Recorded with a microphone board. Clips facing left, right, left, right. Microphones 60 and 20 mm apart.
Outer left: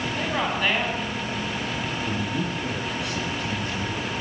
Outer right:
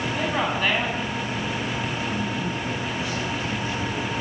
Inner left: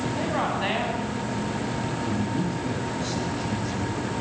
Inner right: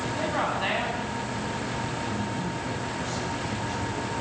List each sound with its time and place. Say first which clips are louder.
0.1 s a woman speaking: outer right 1 dB, even; 5° right (ahead or behind), 8.5 m
2.0 s a man speaking: even, inner left 3 dB; 65° left (ahead or behind), 8.5 m